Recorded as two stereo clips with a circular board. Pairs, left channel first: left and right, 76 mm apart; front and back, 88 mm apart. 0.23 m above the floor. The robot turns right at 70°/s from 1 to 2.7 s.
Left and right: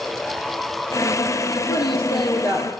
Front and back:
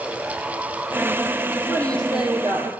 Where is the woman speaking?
65° left, 7.5 m; by 2.7 s 135° left, 7.5 m.